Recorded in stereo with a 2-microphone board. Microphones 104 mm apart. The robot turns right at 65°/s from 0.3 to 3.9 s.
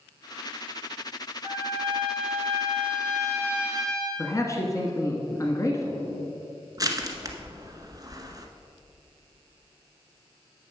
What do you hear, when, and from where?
1.4 s a trumpet: 155° right, 1.6 m; by 4.1 s 5° left, 1.6 m
4.2 s a man speaking: 30° left (ahead or behind), 1.3 m
6.8 s crushing: 35° right (ahead or behind), 1.1 m